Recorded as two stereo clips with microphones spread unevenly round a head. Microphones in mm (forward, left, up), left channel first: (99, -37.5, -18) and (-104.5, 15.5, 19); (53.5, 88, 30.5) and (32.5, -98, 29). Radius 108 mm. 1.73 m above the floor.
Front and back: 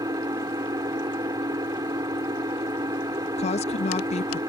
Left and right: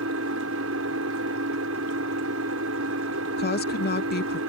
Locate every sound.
0.0 s an engine running: 125° right
3.4 s a woman speaking: 45° left